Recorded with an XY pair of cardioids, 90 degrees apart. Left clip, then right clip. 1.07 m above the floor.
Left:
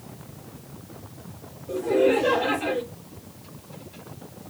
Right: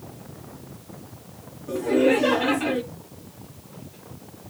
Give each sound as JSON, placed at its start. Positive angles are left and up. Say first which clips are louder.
{"t": 1.7, "sound": "laughter", "louder": "right 1 dB", "azimuth_deg": -70, "distance_m": 2.5}